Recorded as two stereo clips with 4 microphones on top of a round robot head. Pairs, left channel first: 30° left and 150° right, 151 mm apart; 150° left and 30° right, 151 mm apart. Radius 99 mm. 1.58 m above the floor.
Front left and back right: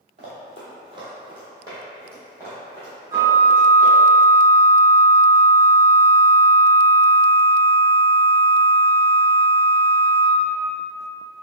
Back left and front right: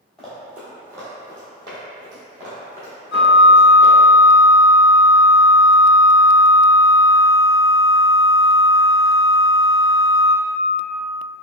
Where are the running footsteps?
120° right, 1.8 m; by 4.0 s 65° right, 3.5 m.